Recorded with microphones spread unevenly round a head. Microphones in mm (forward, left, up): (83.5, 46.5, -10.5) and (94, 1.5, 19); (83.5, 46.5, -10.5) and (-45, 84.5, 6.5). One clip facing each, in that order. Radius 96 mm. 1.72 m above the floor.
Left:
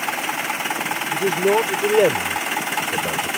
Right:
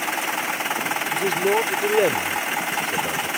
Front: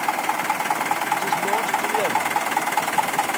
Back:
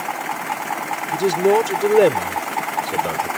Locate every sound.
1.1 s a man speaking: 170° right